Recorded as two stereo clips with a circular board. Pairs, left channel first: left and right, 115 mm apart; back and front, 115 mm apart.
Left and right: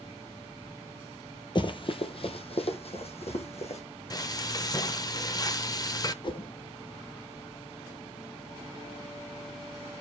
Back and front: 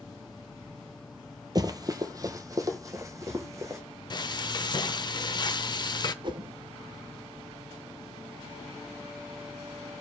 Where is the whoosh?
45° left, 0.6 m.